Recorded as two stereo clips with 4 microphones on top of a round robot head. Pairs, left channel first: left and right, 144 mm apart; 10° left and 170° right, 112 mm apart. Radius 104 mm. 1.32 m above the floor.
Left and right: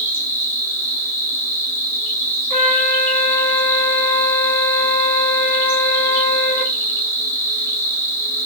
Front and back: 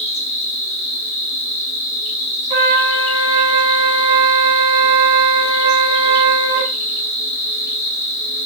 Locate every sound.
0.0 s an insect: 20° left, 1.2 m
2.5 s a flute: 165° left, 1.4 m